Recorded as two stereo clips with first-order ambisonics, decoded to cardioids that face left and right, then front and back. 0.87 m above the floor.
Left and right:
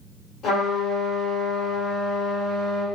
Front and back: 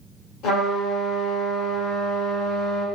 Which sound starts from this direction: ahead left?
A trumpet, at 0.4 s.